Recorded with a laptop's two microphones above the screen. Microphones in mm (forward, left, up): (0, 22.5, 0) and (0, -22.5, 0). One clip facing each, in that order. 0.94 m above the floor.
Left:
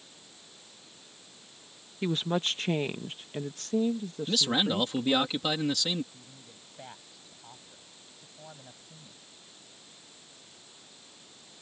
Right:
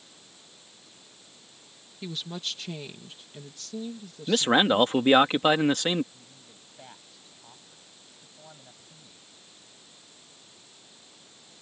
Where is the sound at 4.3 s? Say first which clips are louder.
Right 7 dB; 45° right (ahead or behind).